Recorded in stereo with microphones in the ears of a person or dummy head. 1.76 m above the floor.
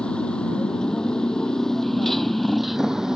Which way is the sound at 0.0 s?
5° left (ahead or behind).